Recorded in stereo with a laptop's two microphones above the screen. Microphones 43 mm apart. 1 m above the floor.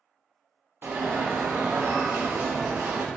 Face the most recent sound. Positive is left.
turn(degrees=-55)  # may be behind; listen again after turning